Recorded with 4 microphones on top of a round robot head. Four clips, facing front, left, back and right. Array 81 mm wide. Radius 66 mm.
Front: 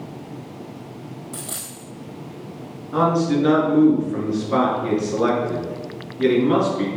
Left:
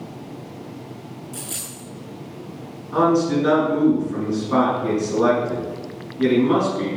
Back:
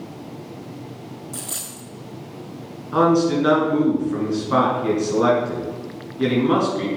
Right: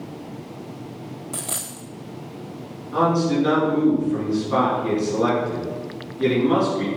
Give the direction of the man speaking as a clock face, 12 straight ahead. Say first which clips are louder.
Left 2 dB, back 2 dB; 6 o'clock.